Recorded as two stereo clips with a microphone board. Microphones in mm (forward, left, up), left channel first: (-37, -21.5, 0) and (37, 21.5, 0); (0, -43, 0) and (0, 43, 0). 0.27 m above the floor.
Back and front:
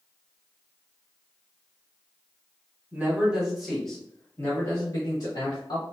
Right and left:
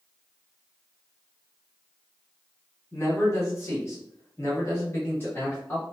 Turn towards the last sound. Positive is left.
turn(degrees=-155)